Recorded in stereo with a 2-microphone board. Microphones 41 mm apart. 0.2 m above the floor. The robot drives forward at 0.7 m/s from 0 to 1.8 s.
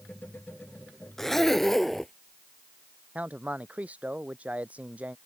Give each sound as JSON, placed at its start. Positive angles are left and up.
{"t": 1.2, "sound": "a zipper", "side_deg": 5}
{"t": 3.1, "sound": "a man speaking", "side_deg": -35}